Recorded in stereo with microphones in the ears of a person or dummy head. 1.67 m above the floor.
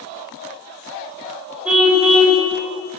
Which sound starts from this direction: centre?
A car horn, at 1.6 s.